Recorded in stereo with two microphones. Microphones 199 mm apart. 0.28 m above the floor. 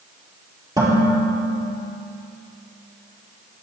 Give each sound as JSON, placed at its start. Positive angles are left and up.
{"t": 0.8, "sound": "dishes clattering", "side_deg": -20, "distance_m": 4.5}